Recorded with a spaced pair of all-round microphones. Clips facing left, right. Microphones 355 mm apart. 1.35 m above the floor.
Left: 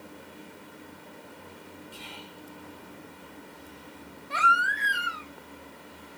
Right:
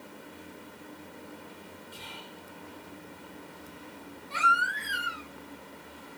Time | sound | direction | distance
1.9 | whispering | 40° left (ahead or behind) | 4.5 m
4.3 | a baby crying | 70° left (ahead or behind) | 3 m